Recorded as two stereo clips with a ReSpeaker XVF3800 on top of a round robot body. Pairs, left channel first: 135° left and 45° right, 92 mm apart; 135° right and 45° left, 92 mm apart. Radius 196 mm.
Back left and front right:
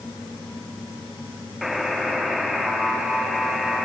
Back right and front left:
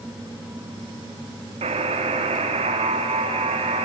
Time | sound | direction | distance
1.6 | a buzzer | 45° left | 1.0 m